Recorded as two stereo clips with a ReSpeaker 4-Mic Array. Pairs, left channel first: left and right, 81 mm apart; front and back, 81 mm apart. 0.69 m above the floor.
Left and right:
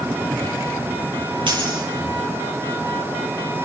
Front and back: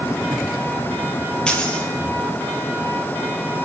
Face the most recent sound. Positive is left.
turn(degrees=-80)